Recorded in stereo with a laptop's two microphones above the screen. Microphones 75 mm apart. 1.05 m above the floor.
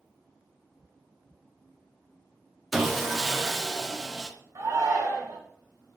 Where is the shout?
50° right (ahead or behind), 0.9 m.